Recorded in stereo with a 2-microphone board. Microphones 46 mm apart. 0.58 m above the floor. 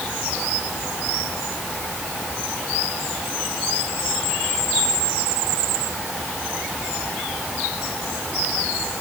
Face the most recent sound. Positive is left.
No sound to turn to.